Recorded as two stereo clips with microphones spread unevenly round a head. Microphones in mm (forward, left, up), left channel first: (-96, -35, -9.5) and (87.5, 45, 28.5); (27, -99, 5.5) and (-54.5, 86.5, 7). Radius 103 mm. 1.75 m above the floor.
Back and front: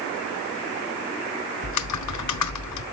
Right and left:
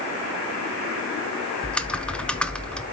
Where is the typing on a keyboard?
150° right, 0.9 m.